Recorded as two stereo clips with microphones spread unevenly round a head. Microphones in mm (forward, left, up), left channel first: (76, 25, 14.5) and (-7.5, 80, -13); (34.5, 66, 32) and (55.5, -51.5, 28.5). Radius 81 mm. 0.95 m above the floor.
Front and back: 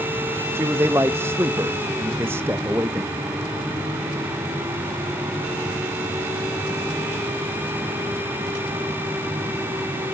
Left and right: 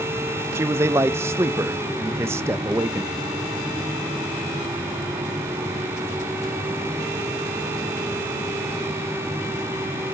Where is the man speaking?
150° right, 0.5 m.